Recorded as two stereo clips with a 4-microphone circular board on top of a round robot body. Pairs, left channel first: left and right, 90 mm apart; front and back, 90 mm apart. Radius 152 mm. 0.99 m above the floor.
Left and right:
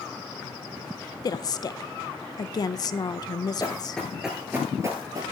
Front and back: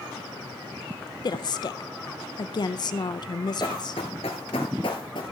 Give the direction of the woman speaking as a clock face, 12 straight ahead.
11 o'clock.